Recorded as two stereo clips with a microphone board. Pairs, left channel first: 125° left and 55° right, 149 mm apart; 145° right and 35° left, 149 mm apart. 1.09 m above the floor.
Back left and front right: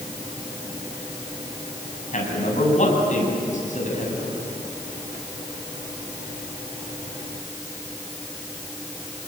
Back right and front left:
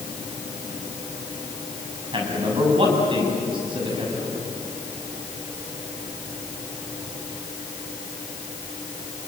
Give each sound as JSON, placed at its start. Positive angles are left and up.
{"t": 2.1, "sound": "a man speaking", "azimuth_deg": 90, "distance_m": 7.0}